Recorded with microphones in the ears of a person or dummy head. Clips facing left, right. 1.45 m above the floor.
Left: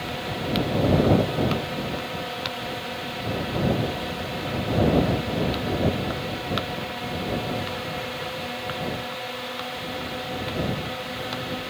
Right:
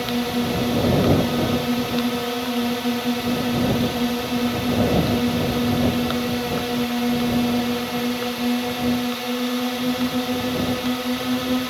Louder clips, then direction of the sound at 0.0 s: Right 8 dB; 55° right (ahead or behind).